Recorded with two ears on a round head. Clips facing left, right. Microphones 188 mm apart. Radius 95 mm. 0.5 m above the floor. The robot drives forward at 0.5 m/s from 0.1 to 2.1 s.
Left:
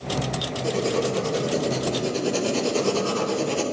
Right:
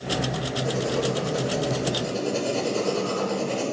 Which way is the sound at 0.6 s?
75° left (ahead or behind).